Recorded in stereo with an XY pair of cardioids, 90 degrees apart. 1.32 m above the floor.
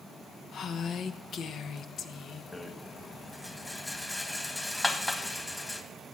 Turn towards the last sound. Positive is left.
turn(degrees=20)